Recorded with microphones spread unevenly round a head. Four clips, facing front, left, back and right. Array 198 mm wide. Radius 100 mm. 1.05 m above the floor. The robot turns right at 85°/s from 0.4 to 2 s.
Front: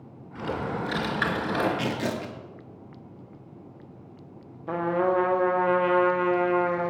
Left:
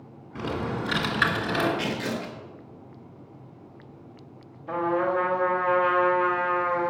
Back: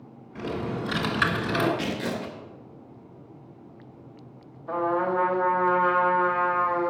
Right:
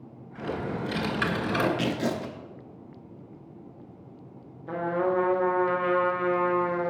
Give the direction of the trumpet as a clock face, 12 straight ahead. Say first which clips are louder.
Left 2 dB, front 1 dB; 1 o'clock.